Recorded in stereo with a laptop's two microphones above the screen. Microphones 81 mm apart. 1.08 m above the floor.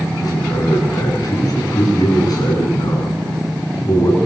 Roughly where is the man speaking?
Left.